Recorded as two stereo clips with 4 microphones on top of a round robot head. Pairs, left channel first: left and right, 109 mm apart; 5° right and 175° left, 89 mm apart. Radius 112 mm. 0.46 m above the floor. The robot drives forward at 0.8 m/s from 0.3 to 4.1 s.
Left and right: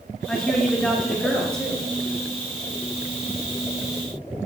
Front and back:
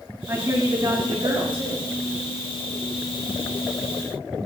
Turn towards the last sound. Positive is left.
turn(degrees=180)